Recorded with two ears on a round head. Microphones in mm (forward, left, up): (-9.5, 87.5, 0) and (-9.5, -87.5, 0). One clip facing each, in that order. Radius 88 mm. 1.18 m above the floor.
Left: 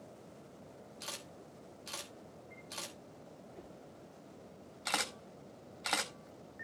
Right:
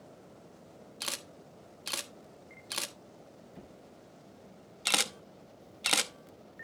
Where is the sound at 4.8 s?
40° right (ahead or behind), 0.9 m.